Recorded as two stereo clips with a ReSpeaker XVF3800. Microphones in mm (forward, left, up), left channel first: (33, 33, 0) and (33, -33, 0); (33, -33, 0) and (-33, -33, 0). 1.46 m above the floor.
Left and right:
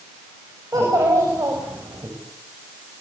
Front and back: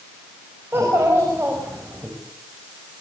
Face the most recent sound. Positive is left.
turn(degrees=-120)